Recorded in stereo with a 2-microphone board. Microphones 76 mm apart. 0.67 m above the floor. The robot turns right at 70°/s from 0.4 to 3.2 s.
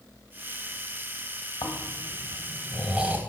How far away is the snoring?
About 1.2 m.